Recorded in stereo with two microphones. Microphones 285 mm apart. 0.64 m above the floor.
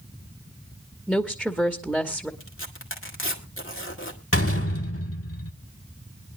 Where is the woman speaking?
Centre (ahead or behind), 1.0 m.